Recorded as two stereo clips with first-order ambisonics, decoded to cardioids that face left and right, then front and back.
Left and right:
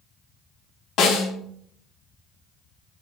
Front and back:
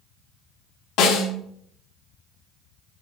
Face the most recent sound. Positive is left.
turn(degrees=40)